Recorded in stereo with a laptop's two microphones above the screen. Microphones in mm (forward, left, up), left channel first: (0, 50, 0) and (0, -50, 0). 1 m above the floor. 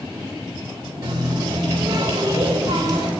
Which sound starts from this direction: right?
A running tap, at 1.0 s.